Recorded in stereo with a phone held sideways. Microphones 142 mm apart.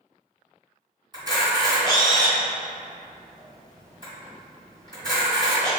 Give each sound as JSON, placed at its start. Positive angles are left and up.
{"t": 1.1, "sound": "a camera shutter", "side_deg": -30, "distance_m": 1.7}